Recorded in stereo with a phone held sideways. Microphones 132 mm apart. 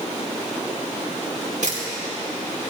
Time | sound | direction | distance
1.6 | a camera shutter | 70° right (ahead or behind) | 4 m